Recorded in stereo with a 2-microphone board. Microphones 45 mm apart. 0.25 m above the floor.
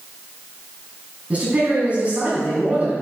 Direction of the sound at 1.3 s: 30° right (ahead or behind).